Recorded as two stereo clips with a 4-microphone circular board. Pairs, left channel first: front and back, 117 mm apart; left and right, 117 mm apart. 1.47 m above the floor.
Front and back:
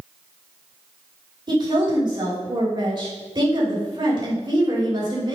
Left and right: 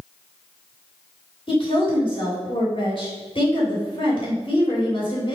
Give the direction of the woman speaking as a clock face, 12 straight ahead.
8 o'clock.